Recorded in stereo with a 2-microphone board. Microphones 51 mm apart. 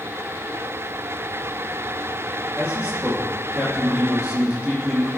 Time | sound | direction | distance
2.6 | a man speaking | 25° right (ahead or behind) | 7.5 m